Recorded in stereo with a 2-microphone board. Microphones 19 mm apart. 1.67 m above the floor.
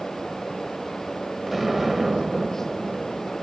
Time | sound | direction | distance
1.5 | an explosion | 5° right (ahead or behind) | 1.1 m